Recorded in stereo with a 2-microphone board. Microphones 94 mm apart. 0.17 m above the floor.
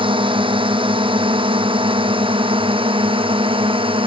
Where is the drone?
65° right (ahead or behind); by 4.1 s 70° right (ahead or behind).